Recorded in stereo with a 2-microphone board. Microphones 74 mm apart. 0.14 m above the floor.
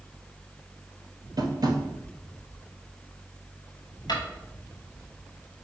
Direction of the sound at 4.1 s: 65° left (ahead or behind).